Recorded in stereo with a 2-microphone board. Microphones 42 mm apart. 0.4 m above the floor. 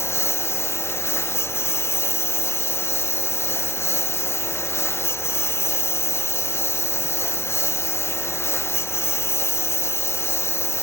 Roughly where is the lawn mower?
Left.